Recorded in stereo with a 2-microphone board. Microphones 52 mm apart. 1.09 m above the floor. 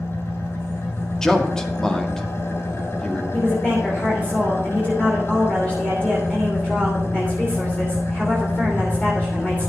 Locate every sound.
0.0 s an engine running: 55° left (ahead or behind), 2.5 m
1.2 s a man speaking: 10° left (ahead or behind), 1.9 m
3.3 s a woman speaking: 25° left (ahead or behind), 3 m